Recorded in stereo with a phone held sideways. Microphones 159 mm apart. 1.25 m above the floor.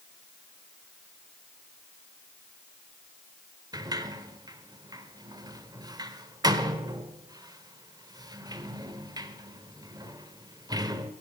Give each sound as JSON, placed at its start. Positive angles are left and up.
{"t": 3.7, "sound": "a sliding door", "side_deg": -25, "distance_m": 1.1}